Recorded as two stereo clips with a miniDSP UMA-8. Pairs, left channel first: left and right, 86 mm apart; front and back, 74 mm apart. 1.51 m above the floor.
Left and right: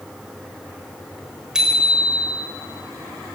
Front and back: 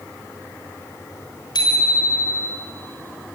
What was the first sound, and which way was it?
A bicycle bell, 10° right.